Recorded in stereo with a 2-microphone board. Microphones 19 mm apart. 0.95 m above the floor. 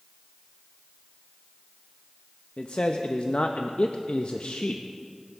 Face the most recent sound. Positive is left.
turn(degrees=65)  # may be behind; listen again after turning